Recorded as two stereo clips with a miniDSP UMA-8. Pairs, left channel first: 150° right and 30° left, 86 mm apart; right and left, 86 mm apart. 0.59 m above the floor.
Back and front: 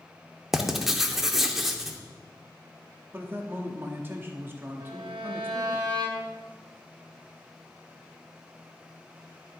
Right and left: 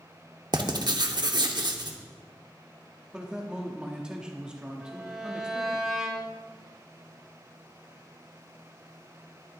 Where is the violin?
5° left, 1.6 m.